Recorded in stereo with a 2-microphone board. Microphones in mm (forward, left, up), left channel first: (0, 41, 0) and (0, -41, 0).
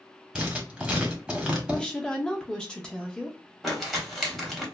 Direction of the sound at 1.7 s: 10° left (ahead or behind).